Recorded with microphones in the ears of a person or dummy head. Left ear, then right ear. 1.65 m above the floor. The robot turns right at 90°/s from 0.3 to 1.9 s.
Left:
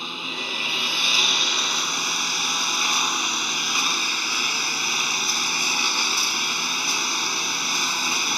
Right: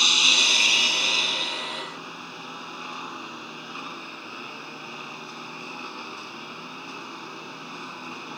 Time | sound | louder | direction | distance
0.0 | a lawn mower | right 11 dB | 35° right | ?